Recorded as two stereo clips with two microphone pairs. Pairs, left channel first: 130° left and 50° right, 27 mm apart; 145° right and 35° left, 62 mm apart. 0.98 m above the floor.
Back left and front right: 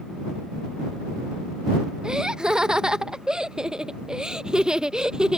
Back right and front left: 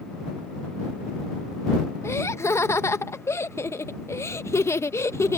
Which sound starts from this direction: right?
Laughter, at 2.0 s.